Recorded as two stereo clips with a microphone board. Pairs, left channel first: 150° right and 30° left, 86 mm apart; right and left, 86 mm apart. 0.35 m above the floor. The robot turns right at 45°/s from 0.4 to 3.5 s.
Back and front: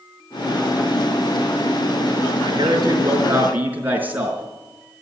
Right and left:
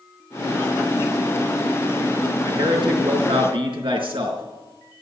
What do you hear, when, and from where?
2.5 s a man speaking: 50° left, 4 m; by 4.4 s 100° left, 4 m